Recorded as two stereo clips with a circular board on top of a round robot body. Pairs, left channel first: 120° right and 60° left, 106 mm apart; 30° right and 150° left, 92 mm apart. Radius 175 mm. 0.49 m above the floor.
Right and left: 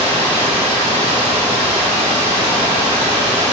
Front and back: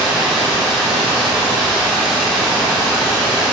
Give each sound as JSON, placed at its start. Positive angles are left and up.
{"t": 0.0, "sound": "running water", "azimuth_deg": 70, "distance_m": 0.7}